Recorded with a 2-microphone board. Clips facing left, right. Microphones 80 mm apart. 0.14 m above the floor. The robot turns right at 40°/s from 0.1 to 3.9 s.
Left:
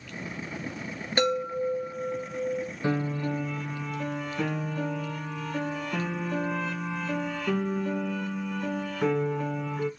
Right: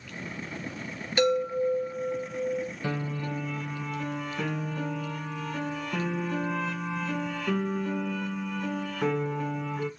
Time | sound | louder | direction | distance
1.2 | a chime | right 2 dB | 50° left | 2.5 m
2.8 | a piano | left 4 dB | 135° left | 1.1 m